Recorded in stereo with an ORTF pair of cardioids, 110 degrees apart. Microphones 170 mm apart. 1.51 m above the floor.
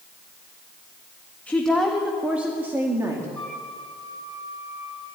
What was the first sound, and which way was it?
A woman speaking, 10° left.